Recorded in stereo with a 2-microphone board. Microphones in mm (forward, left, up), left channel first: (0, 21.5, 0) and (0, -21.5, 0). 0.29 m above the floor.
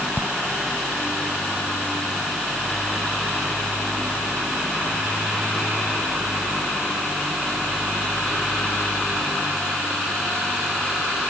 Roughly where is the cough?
I don't hear a cough.